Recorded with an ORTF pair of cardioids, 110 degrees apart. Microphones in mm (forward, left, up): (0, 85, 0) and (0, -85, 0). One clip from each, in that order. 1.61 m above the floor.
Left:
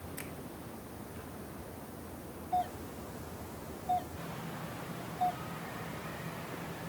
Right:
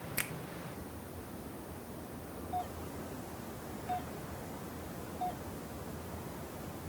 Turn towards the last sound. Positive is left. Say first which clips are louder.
# left 6 dB
turn(degrees=30)